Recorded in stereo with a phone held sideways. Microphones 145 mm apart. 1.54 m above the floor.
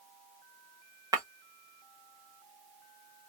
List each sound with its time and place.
1.1 s breaking glass: 25° right (ahead or behind), 0.8 m